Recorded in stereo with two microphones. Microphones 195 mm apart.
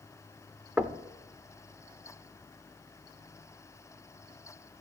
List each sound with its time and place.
0.8 s knocking: 5° right (ahead or behind), 0.7 m